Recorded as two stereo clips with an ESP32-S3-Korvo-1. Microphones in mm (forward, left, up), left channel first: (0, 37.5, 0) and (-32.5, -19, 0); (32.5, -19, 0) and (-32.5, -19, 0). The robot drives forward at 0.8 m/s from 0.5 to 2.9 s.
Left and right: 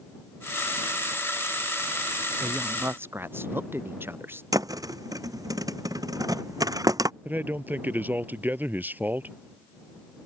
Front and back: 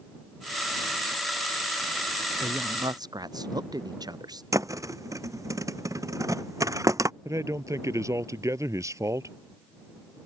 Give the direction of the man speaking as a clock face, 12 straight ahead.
6 o'clock.